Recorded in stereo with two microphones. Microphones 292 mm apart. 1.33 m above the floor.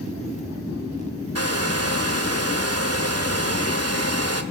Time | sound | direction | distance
1.4 | a hair dryer | 55° right (ahead or behind) | 2.0 m